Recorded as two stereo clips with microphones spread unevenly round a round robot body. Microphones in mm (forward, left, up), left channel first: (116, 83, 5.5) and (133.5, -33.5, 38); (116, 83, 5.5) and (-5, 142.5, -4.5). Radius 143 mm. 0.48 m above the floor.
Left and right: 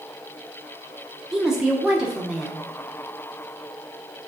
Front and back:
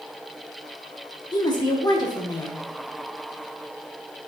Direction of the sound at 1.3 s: 20° left.